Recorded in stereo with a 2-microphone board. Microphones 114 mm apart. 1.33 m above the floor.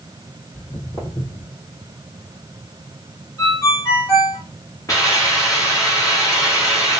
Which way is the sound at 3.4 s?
30° left (ahead or behind).